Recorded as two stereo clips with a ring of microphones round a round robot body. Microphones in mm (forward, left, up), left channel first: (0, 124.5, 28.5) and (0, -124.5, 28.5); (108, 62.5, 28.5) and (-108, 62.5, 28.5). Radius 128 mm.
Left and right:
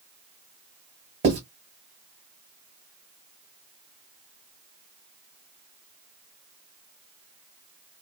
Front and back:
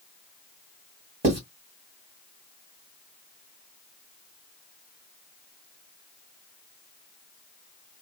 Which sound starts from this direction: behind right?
Writing, at 1.2 s.